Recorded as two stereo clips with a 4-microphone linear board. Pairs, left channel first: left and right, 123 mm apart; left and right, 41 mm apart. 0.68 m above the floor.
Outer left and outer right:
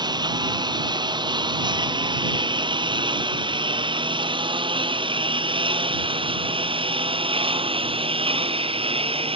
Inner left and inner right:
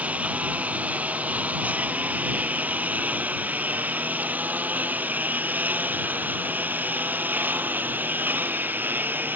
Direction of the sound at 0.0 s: 35° right (ahead or behind).